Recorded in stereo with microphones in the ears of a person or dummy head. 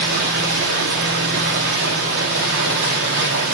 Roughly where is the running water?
Right.